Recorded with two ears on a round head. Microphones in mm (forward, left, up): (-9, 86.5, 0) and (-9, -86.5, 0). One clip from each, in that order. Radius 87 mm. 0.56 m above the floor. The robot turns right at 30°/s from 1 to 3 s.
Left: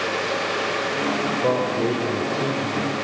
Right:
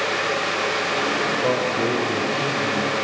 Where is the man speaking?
10° right, 2 m; by 2.9 s 40° left, 2 m.